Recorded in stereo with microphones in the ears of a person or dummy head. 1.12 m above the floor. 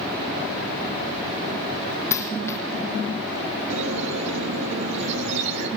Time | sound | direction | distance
2.1 | a dropped coin | 10° left (ahead or behind) | 4.5 m
3.7 | a squeak | 65° right (ahead or behind) | 5.5 m